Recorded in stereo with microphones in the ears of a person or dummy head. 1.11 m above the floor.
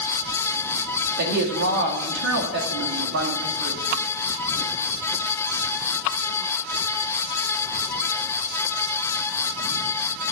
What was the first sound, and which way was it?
A woman speaking, 60° right (ahead or behind).